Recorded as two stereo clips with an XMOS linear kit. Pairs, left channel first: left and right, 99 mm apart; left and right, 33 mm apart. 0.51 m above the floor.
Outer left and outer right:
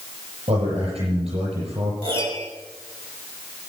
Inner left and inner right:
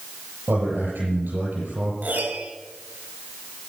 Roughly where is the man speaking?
Right.